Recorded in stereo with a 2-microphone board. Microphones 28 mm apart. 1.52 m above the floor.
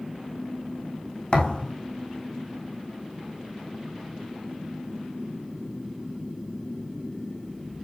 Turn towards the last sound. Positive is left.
turn(degrees=35)  # may be behind; listen again after turning